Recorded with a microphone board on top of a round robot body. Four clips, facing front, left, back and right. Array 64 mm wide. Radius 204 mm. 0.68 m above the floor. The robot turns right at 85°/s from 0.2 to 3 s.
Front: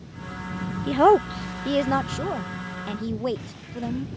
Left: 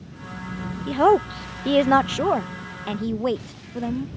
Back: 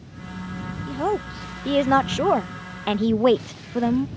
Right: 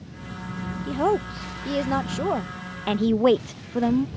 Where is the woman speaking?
30° left; by 4.1 s 150° right.